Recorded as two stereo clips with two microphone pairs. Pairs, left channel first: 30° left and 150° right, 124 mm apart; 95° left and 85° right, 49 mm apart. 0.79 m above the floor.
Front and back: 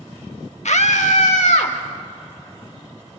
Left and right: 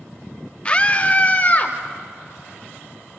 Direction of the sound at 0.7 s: 30° left.